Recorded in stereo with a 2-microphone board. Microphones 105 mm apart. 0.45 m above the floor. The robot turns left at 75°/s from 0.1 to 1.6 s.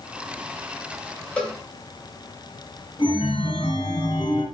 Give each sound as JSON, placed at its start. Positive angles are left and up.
{"t": 1.4, "sound": "a cowbell", "side_deg": 10, "distance_m": 1.9}
{"t": 3.0, "sound": "a chime", "side_deg": 60, "distance_m": 3.0}